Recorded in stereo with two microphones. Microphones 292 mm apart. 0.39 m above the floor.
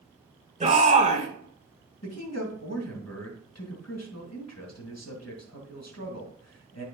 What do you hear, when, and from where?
0.6 s a shout: 25° right (ahead or behind), 1.8 m
2.0 s a man speaking: 60° left (ahead or behind), 2 m